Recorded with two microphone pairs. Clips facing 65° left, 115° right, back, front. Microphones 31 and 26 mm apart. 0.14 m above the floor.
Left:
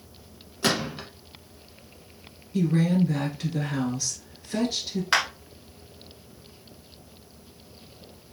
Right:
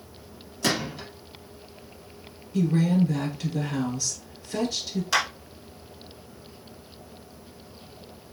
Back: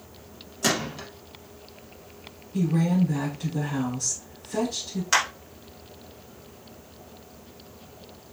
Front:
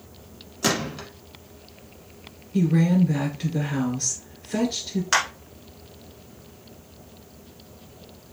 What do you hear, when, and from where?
0.6 s a gunshot: 55° left, 1.1 m
2.5 s a woman speaking: straight ahead, 1.8 m
5.1 s a clap: 70° left, 1.3 m